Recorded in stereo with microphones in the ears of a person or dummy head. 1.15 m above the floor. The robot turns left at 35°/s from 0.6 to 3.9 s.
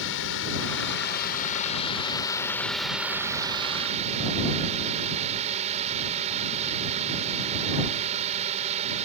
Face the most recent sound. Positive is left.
turn(degrees=-40)